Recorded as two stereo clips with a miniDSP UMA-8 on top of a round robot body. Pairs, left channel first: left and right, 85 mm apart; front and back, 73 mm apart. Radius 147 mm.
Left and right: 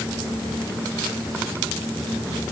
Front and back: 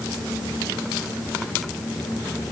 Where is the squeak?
No squeak in this recording.